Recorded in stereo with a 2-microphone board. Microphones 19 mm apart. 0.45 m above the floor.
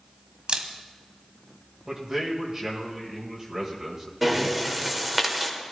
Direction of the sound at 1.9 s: 25° right (ahead or behind).